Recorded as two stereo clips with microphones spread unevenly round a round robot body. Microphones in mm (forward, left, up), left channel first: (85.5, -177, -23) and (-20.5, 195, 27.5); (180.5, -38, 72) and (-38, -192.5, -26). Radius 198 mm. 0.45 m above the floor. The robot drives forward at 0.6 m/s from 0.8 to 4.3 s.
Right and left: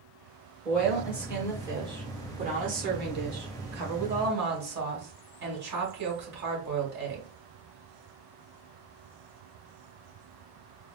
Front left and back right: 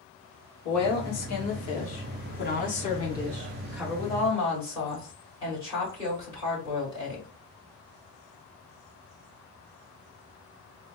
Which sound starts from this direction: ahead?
A woman speaking, at 0.7 s.